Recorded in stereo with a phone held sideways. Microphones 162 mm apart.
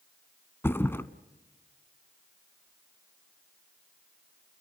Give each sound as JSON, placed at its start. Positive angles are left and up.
{"t": 0.6, "sound": "a thud", "side_deg": 15, "distance_m": 1.0}